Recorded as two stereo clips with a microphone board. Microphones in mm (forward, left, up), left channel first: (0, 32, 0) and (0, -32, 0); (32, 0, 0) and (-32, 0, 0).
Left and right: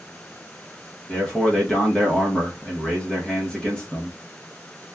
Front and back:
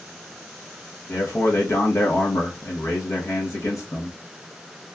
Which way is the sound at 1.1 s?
20° left.